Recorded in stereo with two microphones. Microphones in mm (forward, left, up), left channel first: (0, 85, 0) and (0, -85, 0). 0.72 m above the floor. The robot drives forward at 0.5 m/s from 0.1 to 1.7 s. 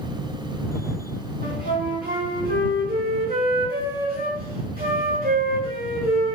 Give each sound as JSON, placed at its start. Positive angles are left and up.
{"t": 1.4, "sound": "a flute", "side_deg": -65, "distance_m": 1.3}